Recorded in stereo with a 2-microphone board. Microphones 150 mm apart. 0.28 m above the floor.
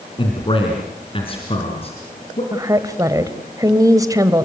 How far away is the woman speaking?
About 1.5 m.